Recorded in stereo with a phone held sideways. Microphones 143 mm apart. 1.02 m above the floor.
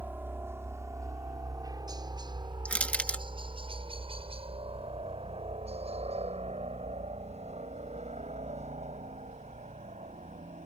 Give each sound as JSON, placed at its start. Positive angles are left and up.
{"t": 0.0, "sound": "a helicopter", "side_deg": -15}
{"t": 2.6, "sound": "crushing", "side_deg": 10}